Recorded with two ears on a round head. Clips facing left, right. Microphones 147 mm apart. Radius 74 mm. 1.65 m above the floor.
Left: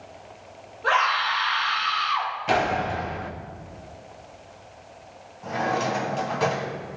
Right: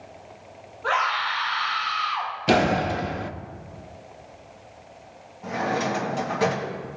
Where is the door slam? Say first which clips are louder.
Right 4 dB; 45° right (ahead or behind), 0.6 m.